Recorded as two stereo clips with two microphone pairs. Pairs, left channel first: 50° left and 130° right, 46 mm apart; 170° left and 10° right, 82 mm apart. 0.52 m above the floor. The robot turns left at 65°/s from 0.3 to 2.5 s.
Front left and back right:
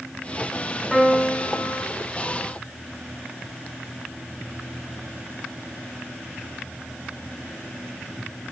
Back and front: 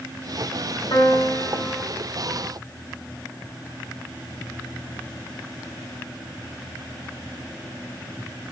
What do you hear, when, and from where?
0.9 s a piano: 135° left, 1.4 m; by 1.9 s 70° left, 1.4 m